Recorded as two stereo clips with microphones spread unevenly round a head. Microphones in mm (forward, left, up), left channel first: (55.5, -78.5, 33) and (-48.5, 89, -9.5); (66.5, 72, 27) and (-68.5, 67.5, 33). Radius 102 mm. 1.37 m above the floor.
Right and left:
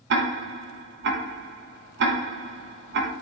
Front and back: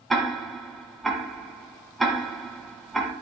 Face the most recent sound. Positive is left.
turn(degrees=95)